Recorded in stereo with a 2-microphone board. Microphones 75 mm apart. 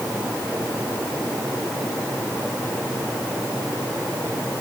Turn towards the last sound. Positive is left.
No sound to turn to.